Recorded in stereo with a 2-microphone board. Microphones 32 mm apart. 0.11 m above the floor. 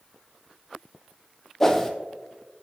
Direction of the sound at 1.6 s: 15° left (ahead or behind).